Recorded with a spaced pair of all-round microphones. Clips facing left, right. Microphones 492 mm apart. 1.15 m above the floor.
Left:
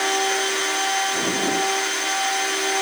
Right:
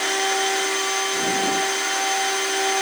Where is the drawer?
No drawer in this recording.